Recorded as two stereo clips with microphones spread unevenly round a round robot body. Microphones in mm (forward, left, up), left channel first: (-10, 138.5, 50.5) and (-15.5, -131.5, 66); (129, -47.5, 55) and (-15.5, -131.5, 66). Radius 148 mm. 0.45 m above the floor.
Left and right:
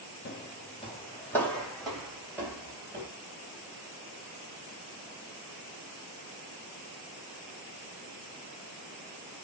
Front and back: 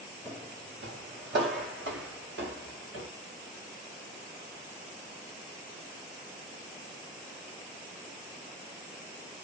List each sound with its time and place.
0.2 s footsteps: 140° left, 0.7 m; by 3.1 s 170° right, 1.8 m